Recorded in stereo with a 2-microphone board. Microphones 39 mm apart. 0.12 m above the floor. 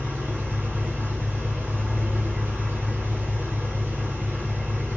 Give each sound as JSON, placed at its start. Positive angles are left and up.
{"t": 0.0, "sound": "an engine running", "side_deg": -70, "distance_m": 1.0}